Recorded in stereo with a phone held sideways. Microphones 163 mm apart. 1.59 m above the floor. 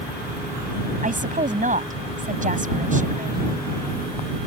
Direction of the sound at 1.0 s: 55° right (ahead or behind).